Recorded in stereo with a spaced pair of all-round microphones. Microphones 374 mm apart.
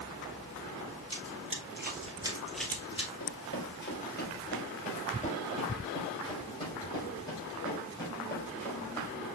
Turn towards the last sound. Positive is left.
turn(degrees=5)  # may be behind; listen again after turning